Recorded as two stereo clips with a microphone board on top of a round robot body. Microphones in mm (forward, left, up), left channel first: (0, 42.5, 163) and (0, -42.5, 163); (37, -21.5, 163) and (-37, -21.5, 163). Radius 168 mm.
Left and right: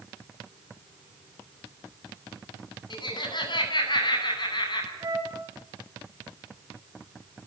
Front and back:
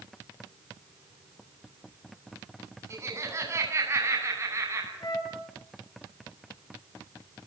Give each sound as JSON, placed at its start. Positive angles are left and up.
{"t": 2.9, "sound": "laughter", "azimuth_deg": 125, "distance_m": 9.0}
{"t": 5.0, "sound": "a flute", "azimuth_deg": -40, "distance_m": 8.5}